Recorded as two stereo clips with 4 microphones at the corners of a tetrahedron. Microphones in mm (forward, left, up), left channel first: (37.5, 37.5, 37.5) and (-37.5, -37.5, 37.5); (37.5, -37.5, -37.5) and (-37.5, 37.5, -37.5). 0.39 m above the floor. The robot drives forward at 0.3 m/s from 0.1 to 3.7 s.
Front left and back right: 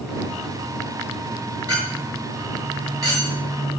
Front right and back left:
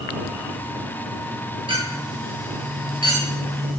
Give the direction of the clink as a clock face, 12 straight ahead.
6 o'clock.